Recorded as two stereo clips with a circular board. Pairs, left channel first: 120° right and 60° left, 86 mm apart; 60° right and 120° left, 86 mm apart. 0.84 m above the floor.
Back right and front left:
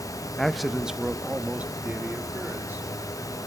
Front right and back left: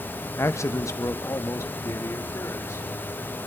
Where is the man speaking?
45° right, 0.6 m; by 2.9 s 5° right, 2 m.